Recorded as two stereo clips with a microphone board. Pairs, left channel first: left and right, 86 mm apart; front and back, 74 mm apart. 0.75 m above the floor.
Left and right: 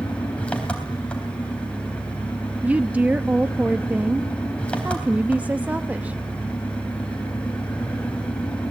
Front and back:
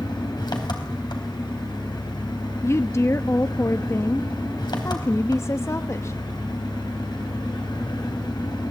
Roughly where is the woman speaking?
Ahead right.